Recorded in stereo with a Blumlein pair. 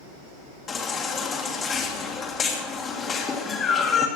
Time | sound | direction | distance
0.7 | a baby crying | 25° left | 1.6 m